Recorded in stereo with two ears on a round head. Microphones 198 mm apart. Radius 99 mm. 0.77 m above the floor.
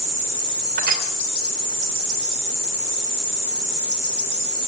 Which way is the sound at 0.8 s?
45° right (ahead or behind).